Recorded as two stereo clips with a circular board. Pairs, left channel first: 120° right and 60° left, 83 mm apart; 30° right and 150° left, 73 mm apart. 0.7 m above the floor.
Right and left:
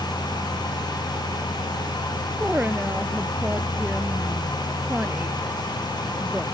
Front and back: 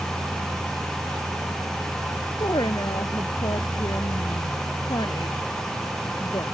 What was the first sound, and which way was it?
A woman speaking, 15° right.